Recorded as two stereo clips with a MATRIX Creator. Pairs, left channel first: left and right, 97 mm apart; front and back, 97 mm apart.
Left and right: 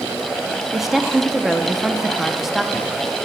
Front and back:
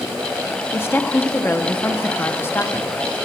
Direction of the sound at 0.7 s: 10° right.